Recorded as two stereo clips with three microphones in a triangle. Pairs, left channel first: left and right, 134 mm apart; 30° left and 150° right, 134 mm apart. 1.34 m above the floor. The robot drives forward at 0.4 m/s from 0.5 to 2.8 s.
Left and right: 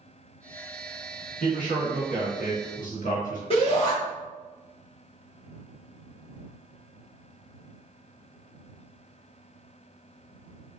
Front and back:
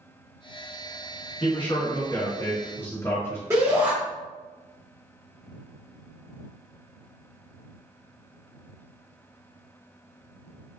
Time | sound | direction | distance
1.4 | a man speaking | 75° left | 1.3 m
3.5 | a shout | 140° left | 1.0 m